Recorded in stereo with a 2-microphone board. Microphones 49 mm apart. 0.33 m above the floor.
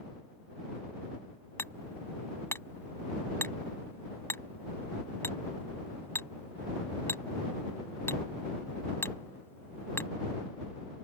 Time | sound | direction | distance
1.6 | hammering | 55° left (ahead or behind) | ?